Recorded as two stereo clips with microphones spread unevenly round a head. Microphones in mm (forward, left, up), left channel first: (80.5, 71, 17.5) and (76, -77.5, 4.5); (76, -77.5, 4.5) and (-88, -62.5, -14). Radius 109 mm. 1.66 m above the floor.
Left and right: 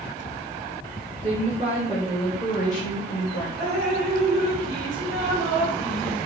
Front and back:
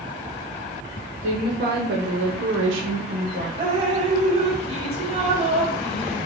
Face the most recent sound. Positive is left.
turn(degrees=-130)